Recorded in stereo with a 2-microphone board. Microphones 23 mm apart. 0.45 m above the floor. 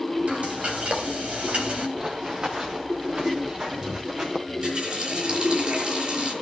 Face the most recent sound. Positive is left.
turn(degrees=-50)  # may be behind; listen again after turning